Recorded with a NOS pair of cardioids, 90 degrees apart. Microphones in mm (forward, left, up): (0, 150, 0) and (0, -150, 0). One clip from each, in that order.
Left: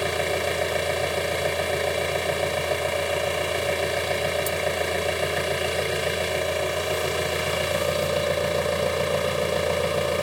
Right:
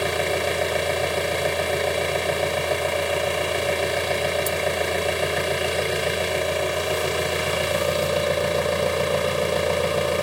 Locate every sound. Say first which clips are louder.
0.0 s an engine running: right 2 dB; 10° right